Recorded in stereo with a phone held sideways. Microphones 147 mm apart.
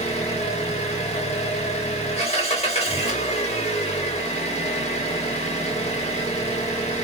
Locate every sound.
0.0 s an engine running: 45° left (ahead or behind), 1.2 m